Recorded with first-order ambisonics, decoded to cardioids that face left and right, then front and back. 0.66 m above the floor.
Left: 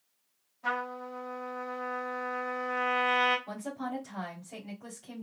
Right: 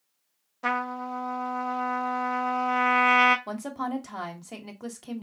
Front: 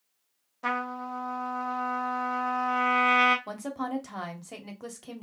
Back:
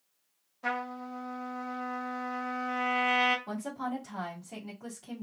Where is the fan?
No fan in this recording.